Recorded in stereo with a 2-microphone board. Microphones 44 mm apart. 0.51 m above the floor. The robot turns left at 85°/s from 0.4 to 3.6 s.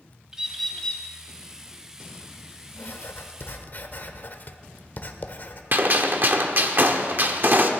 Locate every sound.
0.3 s a bird: 165° right, 1.5 m; by 1.0 s 140° left, 1.5 m
2.8 s writing: 125° left, 1.0 m; by 5.6 s 55° left, 1.0 m
5.7 s a gunshot: 45° right (ahead or behind), 1.0 m